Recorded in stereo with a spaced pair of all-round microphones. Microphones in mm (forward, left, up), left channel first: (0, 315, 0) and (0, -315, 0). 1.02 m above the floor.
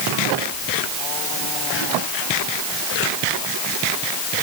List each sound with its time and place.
Only background noise.